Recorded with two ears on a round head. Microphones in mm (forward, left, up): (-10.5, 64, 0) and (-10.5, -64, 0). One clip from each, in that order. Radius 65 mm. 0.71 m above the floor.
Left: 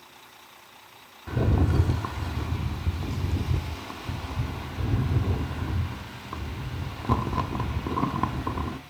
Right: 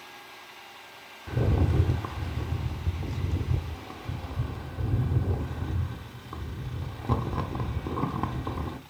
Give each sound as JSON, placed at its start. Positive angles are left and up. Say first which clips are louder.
{"t": 1.3, "sound": "a rattle", "louder": "left 2 dB", "side_deg": 20, "distance_m": 0.9}